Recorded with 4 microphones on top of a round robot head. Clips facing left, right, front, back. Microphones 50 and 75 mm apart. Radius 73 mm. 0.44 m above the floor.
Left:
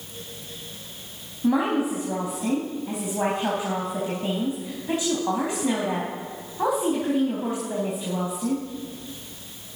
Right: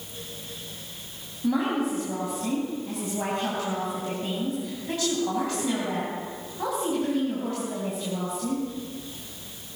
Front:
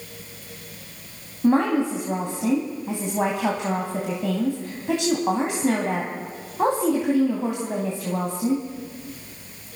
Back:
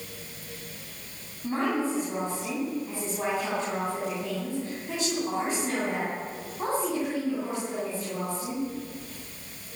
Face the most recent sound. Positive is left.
turn(degrees=15)